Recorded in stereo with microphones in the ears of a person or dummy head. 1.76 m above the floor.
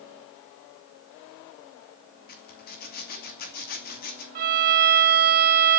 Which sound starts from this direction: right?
A violin, at 4.3 s.